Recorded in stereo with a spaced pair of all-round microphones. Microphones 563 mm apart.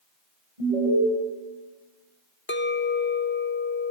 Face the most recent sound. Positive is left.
turn(degrees=20)  # may be behind; listen again after turning